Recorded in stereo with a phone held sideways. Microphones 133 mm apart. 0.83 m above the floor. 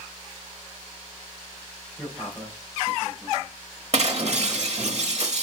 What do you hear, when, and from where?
2.0 s a man speaking: 5° left (ahead or behind), 3.5 m; by 3.6 s centre (ahead or behind), 4.5 m
3.9 s breaking glass: 55° right (ahead or behind), 1.1 m